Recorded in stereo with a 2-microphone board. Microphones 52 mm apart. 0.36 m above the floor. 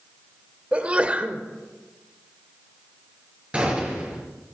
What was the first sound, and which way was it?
A sneeze, 25° right (ahead or behind).